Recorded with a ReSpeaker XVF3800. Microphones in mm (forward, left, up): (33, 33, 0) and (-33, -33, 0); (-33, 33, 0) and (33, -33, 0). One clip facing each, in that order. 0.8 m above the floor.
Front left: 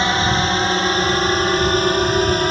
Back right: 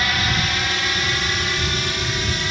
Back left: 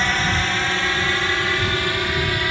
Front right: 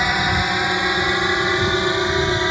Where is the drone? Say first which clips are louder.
Front left 5 dB, front right 2 dB; 25° left; by 2.5 s 15° left.